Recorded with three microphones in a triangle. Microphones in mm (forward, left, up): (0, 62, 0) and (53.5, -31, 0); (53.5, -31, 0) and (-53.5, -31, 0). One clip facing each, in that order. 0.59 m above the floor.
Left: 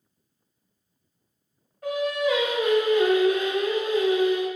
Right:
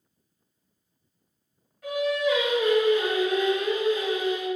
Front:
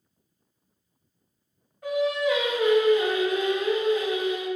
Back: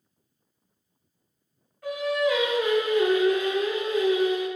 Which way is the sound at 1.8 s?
70° left.